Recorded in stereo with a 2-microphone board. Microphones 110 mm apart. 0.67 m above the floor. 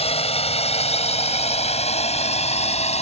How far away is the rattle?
No rattle in this recording.